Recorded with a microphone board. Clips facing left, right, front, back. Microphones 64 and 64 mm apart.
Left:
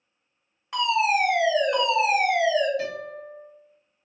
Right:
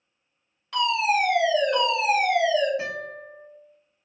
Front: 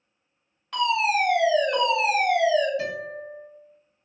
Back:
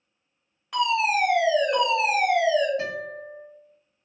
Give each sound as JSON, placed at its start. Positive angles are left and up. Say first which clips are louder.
{"t": 0.7, "sound": "a fire alarm", "louder": "left 1 dB, even", "azimuth_deg": 115, "distance_m": 1.6}
{"t": 2.8, "sound": "a guitar", "louder": "left 1 dB, even", "azimuth_deg": -150, "distance_m": 1.5}